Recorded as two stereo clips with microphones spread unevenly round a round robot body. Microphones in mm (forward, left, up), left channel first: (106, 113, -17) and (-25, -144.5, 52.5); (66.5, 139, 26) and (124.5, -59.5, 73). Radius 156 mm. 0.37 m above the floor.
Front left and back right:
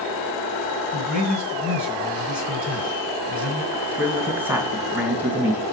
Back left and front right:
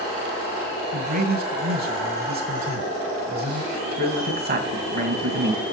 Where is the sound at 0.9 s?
25° right, 3 m.